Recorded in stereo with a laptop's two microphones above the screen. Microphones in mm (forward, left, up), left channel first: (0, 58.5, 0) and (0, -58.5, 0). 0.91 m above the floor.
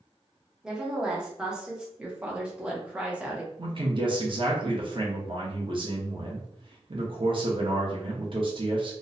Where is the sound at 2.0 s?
10° right (ahead or behind), 0.6 m.